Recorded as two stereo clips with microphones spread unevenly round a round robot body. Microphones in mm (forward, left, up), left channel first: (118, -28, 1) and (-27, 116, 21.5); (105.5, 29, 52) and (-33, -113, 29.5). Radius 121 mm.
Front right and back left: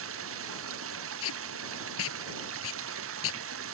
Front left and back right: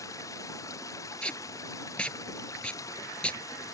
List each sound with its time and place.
0.0 s running water: 125° left
1.2 s tape being pulled: 40° right